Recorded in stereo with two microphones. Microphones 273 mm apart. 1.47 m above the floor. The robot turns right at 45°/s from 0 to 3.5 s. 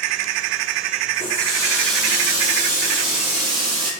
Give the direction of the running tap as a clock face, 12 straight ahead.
7 o'clock.